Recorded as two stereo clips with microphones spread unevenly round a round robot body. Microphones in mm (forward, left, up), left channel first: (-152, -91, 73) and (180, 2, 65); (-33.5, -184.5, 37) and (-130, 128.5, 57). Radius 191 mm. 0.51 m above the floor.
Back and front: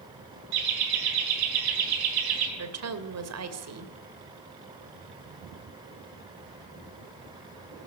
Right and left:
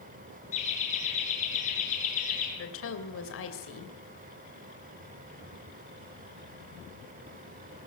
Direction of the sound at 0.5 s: Straight ahead.